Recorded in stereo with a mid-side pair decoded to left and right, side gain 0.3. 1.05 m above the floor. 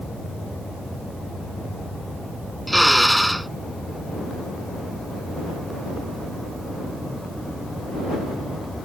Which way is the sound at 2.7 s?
5° right.